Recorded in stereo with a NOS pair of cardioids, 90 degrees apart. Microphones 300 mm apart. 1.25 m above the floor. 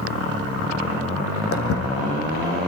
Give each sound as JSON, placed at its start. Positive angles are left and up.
{"t": 1.5, "sound": "footsteps", "azimuth_deg": 50, "distance_m": 4.5}